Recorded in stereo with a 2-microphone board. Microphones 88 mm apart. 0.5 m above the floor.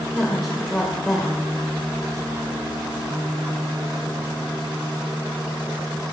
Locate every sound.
0.1 s a woman speaking: centre (ahead or behind), 1.8 m